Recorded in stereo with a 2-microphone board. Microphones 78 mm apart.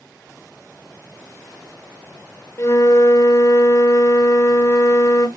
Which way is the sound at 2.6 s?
40° left (ahead or behind).